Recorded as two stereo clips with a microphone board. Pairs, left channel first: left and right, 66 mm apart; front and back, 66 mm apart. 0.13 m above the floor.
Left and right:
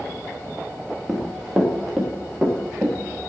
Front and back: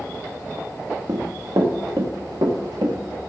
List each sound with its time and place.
1.1 s running footsteps: 175° left, 2.5 m; by 3.0 s 175° right, 5 m